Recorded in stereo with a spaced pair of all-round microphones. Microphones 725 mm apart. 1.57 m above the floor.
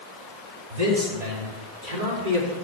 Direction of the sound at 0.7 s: 65° right (ahead or behind).